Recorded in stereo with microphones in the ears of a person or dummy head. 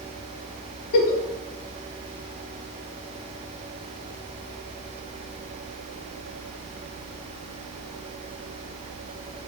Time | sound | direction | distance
0.9 | a giggle | 70° left (ahead or behind) | 0.9 m